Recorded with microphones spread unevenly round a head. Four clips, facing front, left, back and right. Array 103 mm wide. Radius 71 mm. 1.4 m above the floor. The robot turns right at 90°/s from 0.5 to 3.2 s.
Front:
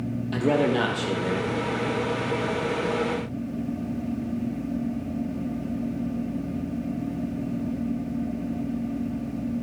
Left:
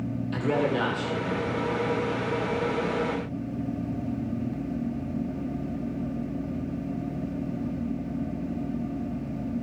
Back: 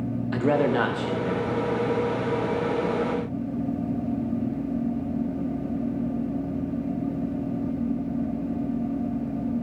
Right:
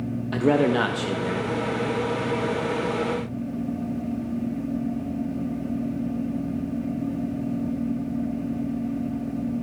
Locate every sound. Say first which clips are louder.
0.3 s a man speaking: right 6 dB, even; 105° right, 1.3 m; by 1.5 s 15° right, 1.3 m